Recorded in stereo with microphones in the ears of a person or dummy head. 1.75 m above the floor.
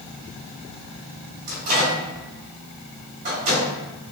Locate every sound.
1.5 s a microwave: 40° right (ahead or behind), 1.3 m